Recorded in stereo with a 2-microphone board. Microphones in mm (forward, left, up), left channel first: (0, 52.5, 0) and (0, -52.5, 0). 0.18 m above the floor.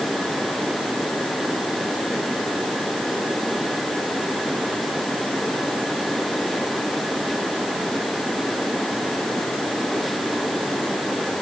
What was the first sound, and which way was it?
Only background noise.